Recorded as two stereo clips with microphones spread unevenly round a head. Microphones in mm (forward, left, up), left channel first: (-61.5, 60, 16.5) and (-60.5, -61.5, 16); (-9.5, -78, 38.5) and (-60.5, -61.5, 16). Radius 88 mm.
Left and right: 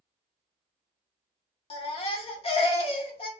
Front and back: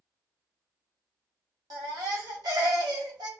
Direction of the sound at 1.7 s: 125° left.